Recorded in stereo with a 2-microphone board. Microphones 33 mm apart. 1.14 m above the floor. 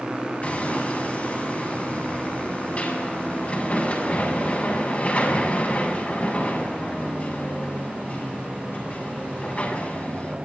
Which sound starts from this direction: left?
Hammering, at 0.4 s.